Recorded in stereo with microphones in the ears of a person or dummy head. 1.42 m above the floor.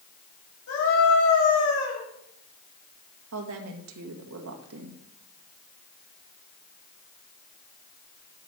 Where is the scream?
80° left, 7.5 m.